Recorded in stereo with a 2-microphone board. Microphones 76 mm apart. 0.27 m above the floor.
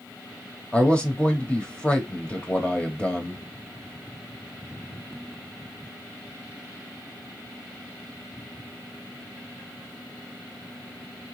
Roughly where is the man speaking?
Centre.